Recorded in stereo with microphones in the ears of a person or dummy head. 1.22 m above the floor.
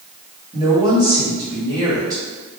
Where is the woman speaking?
20° right (ahead or behind), 1.8 m.